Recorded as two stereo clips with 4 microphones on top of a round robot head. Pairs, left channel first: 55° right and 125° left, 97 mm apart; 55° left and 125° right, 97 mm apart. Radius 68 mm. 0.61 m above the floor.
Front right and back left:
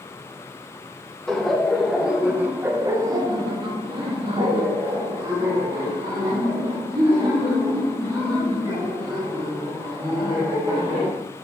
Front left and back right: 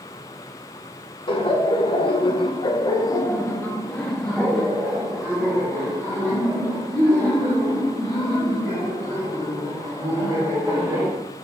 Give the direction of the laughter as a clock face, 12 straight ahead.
11 o'clock.